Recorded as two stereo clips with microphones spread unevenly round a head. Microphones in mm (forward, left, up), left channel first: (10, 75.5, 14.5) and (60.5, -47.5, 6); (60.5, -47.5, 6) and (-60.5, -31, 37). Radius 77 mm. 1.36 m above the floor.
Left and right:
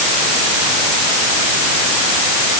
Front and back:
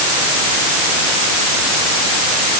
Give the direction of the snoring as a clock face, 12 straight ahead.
No snoring in this recording.